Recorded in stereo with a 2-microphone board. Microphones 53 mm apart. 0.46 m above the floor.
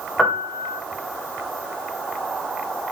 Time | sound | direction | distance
0.2 | a piano | 5° left (ahead or behind) | 2.5 m